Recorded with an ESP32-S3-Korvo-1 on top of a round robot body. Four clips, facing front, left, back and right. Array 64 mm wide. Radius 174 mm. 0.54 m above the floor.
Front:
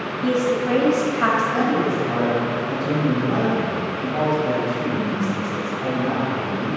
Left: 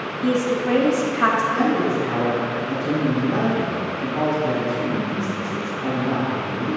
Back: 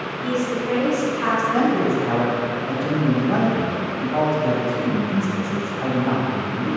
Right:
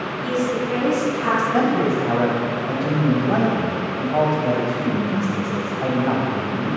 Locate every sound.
0.2 s a woman speaking: 50° left, 4 m
1.5 s a man speaking: 105° right, 4.5 m